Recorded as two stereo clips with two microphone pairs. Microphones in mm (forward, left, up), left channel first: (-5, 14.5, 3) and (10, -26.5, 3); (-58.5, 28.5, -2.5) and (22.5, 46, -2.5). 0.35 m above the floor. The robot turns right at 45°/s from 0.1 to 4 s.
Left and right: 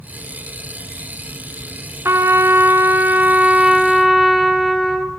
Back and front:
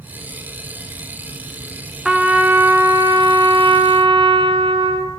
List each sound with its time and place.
2.0 s a trumpet: 70° right, 3 m; by 5.1 s 15° left, 3 m